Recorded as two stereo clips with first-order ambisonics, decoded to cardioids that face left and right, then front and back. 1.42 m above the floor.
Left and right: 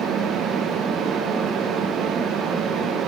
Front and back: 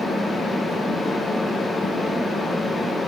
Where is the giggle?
No giggle in this recording.